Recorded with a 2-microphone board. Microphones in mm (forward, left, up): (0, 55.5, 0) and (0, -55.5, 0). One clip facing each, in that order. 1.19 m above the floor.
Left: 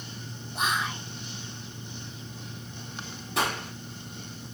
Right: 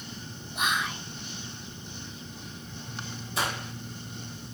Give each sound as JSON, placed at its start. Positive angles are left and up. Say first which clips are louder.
{"t": 0.6, "sound": "whispering", "louder": "left 1 dB", "side_deg": 35, "distance_m": 1.7}
{"t": 3.4, "sound": "a gunshot", "louder": "left 3 dB", "side_deg": 70, "distance_m": 3.0}